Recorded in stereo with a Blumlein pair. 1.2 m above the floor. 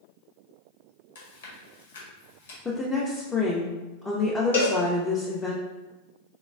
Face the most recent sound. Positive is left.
turn(degrees=65)